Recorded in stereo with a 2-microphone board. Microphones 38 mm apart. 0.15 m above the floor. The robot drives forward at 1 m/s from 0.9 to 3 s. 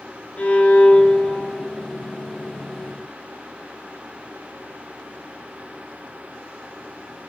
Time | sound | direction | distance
0.4 | a violin | 40° left (ahead or behind) | 0.7 m